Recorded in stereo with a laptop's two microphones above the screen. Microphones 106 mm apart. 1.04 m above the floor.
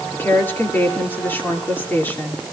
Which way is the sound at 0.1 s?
20° left (ahead or behind).